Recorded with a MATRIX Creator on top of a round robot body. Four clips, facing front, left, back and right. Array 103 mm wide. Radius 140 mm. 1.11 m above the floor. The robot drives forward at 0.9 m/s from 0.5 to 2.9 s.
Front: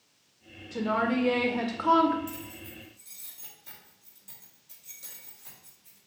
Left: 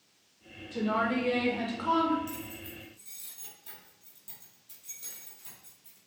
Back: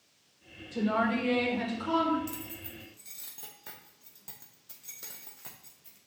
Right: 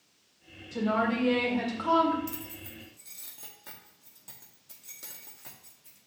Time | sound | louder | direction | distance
0.7 | a woman speaking | right 1 dB, front 1 dB | 5° right | 2.5 m
2.3 | keys jangling | left 1 dB, front 1 dB | 120° right | 0.6 m